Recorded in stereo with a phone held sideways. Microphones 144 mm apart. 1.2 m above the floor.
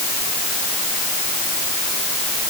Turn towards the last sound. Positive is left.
No sound to turn to.